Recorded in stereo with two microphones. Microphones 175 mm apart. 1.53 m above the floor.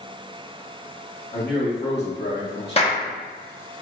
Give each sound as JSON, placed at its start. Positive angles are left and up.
{"t": 1.3, "sound": "a man speaking", "side_deg": 60, "distance_m": 1.6}
{"t": 2.8, "sound": "a clap", "side_deg": 35, "distance_m": 0.8}